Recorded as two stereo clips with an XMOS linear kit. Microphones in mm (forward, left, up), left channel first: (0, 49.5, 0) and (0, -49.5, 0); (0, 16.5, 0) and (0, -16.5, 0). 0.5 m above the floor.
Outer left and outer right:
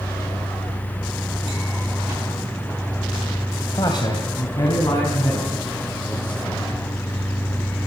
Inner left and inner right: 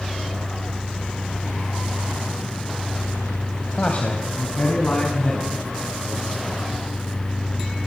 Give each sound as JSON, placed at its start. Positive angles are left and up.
{"t": 3.7, "sound": "a man speaking", "side_deg": 50, "distance_m": 2.5}